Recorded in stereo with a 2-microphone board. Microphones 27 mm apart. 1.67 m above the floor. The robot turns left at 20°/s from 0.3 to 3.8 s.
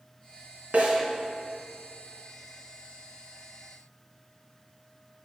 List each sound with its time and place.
0.7 s a snare drum: 60° right (ahead or behind), 3 m; by 1.0 s 65° right (ahead or behind), 3 m